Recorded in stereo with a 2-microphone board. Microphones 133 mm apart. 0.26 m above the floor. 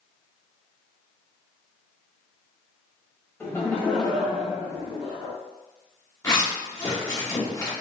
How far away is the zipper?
About 1.6 m.